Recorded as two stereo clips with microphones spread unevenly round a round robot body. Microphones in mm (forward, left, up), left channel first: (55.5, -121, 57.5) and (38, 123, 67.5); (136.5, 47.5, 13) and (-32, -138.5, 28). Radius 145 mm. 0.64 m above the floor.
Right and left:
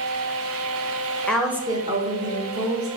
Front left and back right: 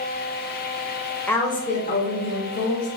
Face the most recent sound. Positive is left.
turn(degrees=55)